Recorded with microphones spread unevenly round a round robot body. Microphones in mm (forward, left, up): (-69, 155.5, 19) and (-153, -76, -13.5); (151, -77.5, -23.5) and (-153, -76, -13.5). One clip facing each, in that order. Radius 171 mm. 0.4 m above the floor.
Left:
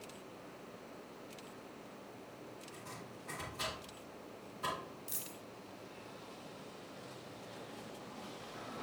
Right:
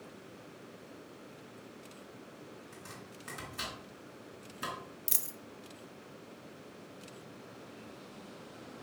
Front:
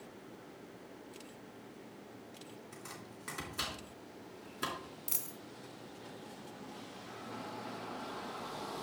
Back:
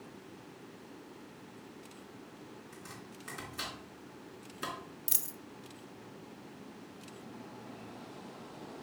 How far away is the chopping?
About 3.5 m.